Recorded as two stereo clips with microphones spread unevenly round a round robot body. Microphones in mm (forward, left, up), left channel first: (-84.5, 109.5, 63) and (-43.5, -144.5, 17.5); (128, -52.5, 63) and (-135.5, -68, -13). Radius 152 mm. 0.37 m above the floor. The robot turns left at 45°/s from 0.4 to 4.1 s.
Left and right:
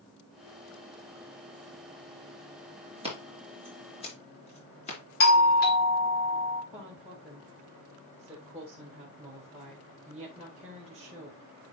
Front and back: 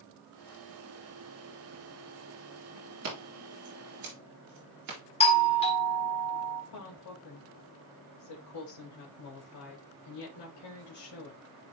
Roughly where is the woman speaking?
Ahead.